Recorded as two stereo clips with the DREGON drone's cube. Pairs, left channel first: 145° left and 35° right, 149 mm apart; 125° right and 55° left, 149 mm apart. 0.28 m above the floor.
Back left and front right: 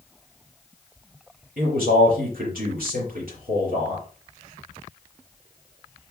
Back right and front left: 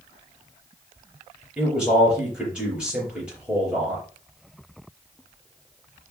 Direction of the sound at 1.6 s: 30° right.